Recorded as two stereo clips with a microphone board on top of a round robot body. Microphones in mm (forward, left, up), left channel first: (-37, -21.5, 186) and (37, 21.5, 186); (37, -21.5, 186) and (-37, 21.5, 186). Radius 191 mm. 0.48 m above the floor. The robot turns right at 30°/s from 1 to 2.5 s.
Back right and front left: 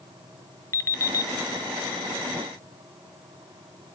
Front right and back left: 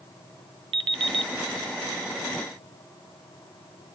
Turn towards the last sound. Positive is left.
turn(degrees=-160)